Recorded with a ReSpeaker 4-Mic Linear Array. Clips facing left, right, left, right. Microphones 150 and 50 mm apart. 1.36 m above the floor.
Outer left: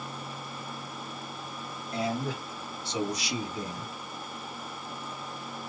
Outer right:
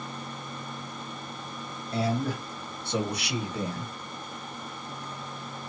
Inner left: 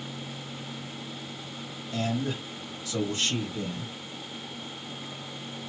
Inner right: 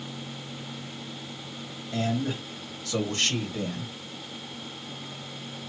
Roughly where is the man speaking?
Right.